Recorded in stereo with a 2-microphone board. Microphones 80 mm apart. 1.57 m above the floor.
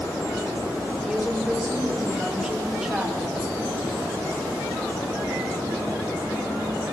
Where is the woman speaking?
10° right (ahead or behind), 5 m.